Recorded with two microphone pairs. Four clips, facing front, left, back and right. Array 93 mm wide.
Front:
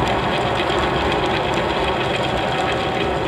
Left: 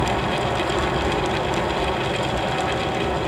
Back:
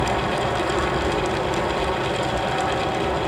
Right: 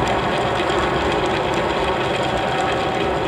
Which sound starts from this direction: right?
An aircraft, at 0.0 s.